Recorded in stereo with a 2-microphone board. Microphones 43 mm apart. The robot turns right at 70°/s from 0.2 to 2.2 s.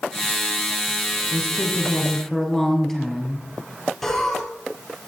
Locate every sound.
1.3 s a woman speaking: 115° left, 3 m; by 3.4 s 175° left, 3 m
4.0 s laughter: 5° left (ahead or behind), 4 m